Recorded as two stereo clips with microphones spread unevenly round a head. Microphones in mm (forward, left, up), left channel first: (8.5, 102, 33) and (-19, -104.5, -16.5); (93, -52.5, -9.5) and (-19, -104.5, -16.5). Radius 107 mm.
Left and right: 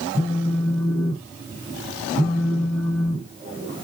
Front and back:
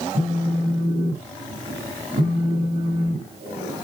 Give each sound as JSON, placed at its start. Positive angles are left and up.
{"t": 0.1, "sound": "a phone buzzing", "azimuth_deg": -155, "distance_m": 2.5}